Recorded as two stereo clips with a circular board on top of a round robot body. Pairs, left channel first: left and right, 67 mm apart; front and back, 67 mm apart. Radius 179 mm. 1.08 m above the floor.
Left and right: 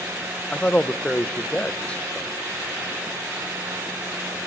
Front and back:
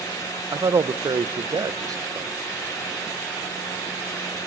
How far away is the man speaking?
About 1.2 m.